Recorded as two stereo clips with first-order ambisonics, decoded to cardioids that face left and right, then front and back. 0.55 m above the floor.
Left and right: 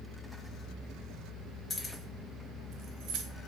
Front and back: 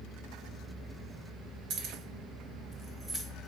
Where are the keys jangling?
155° left, 0.7 m; by 3.2 s 95° right, 0.8 m.